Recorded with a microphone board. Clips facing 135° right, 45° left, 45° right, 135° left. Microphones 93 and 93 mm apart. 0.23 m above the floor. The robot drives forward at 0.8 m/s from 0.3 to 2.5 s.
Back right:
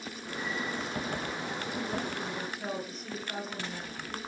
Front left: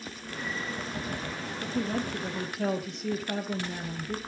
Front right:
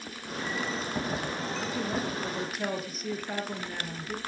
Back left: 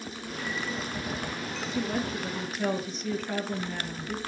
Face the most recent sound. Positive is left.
turn(degrees=40)